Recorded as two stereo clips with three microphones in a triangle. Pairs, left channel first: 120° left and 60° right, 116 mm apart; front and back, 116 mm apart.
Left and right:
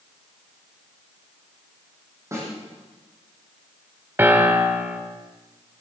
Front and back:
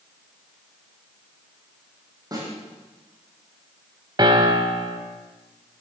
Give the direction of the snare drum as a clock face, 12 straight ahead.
4 o'clock.